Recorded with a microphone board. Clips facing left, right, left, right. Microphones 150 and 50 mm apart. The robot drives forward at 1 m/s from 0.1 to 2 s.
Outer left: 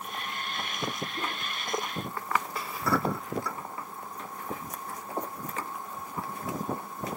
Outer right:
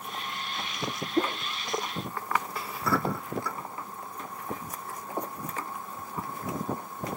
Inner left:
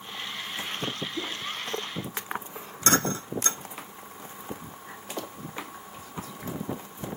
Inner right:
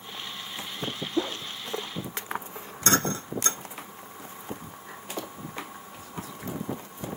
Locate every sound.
1.2 s a whoosh: 75° right (ahead or behind), 1.5 m